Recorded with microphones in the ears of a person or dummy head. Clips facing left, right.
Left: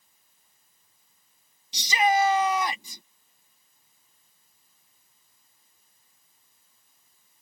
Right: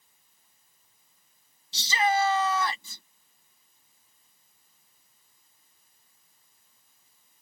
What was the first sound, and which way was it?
A shout, 15° left (ahead or behind).